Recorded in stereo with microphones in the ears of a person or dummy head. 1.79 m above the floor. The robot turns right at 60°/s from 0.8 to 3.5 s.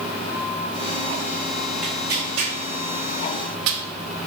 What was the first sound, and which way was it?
Tearing paper, 10° right (ahead or behind).